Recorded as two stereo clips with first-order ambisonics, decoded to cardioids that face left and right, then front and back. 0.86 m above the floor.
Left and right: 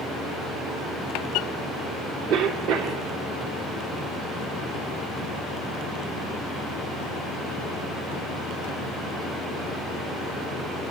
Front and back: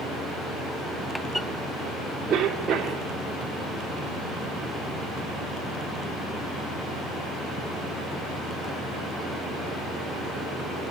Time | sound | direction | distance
2.3 | a cough | 105° right | 3.5 m